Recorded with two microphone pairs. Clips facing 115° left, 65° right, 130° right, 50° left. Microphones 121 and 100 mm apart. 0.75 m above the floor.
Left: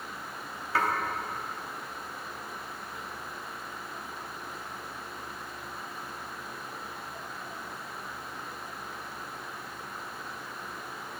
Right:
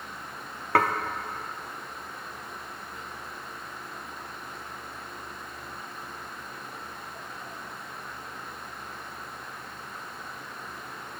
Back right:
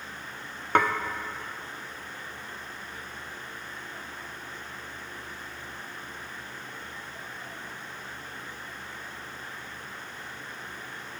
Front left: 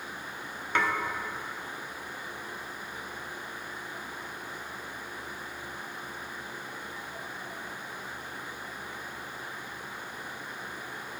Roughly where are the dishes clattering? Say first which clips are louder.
Right 5 dB, back right 5 dB; right.